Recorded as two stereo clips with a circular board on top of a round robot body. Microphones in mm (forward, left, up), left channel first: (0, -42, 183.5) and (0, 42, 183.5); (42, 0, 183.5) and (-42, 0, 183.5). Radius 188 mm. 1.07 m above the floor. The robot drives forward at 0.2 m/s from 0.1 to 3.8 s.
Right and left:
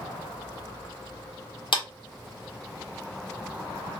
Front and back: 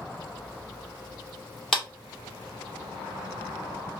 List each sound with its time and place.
1.7 s a clap: 85° right, 1.6 m